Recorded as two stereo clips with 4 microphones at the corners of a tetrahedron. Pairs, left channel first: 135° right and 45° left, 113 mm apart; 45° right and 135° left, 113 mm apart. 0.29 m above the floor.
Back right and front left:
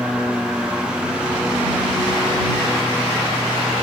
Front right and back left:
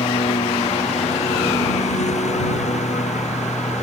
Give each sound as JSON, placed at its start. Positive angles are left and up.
{"t": 0.0, "sound": "a lawn mower", "azimuth_deg": -35}